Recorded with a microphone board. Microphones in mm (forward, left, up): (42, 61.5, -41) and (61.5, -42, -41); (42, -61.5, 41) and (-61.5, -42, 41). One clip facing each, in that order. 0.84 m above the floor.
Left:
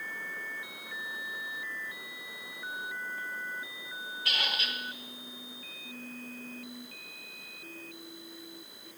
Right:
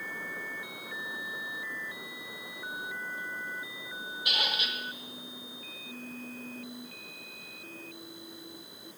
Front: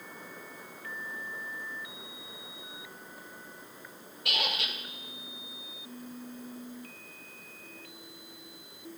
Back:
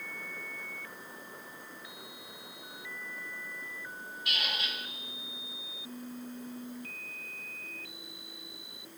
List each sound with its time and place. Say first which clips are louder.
4.2 s a squeak: right 1 dB, front 4 dB; 5° right, 1.0 m